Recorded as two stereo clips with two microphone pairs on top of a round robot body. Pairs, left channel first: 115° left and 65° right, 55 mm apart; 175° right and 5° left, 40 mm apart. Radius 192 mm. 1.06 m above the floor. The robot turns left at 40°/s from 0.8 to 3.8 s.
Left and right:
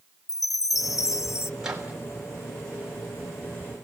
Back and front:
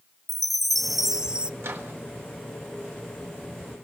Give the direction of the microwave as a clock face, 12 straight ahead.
12 o'clock.